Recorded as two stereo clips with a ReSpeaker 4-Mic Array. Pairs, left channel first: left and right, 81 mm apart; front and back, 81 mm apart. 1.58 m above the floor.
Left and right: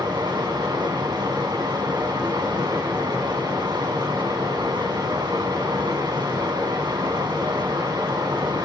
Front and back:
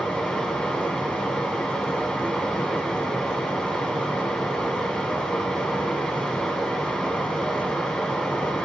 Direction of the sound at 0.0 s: 90° right.